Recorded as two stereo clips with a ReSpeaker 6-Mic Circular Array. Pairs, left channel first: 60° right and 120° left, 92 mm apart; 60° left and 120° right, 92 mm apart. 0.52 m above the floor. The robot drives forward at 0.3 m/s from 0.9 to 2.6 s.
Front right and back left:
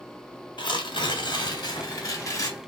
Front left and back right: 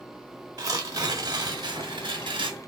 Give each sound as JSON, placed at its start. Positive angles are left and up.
{"t": 0.6, "sound": "tearing paper", "azimuth_deg": -80, "distance_m": 0.9}